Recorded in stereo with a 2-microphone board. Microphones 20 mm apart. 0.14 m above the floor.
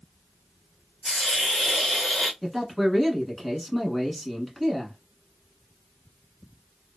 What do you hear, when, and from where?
1.0 s a hiss: 60° left (ahead or behind), 1.1 m
2.4 s a man speaking: 5° left (ahead or behind), 1.1 m